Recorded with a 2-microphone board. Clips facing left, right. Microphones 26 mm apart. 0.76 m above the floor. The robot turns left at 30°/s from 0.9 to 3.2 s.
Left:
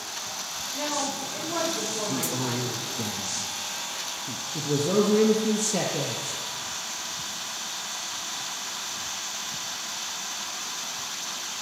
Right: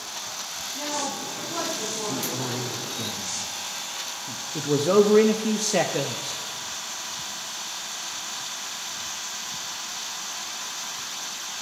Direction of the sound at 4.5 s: 30° right (ahead or behind).